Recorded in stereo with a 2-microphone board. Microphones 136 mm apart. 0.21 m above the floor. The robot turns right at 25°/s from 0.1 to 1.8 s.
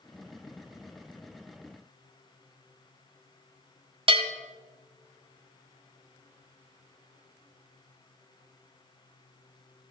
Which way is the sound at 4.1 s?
45° right (ahead or behind).